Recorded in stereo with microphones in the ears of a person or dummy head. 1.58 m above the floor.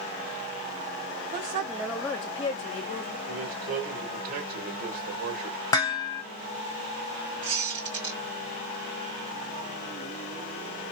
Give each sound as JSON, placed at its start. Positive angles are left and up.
{"t": 1.3, "sound": "a woman speaking", "side_deg": -30, "distance_m": 0.5}
{"t": 3.3, "sound": "a man speaking", "side_deg": -45, "distance_m": 2.0}
{"t": 5.7, "sound": "dishes clattering", "side_deg": 20, "distance_m": 0.7}
{"t": 7.4, "sound": "a squeak", "side_deg": -25, "distance_m": 2.5}